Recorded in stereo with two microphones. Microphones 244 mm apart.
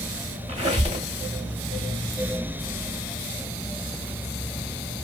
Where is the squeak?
30° right (ahead or behind), 0.8 m.